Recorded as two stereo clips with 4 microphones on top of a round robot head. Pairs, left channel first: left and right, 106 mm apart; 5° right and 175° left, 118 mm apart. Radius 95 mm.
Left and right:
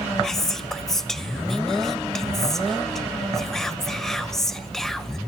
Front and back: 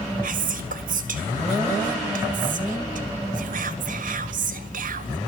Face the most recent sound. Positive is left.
turn(degrees=175)